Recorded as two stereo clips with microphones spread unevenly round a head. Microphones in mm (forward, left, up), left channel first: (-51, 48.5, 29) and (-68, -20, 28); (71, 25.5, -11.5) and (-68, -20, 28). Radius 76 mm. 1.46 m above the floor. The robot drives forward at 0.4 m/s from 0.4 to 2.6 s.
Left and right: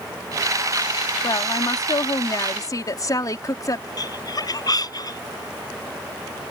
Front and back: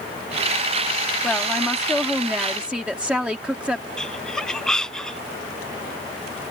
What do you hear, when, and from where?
1.2 s a woman speaking: 105° left; by 3.9 s 115° left
4.0 s laughter: 105° left